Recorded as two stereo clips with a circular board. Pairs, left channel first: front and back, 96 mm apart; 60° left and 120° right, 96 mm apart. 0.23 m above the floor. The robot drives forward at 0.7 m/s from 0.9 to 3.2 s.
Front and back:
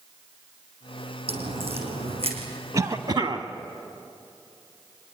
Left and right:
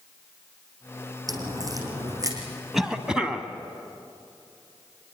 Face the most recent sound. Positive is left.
turn(degrees=160)